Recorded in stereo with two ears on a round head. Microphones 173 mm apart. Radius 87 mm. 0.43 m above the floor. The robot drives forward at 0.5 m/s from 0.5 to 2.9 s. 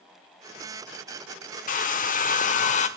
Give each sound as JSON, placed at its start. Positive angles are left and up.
{"t": 1.7, "sound": "a hair dryer", "side_deg": 45, "distance_m": 1.2}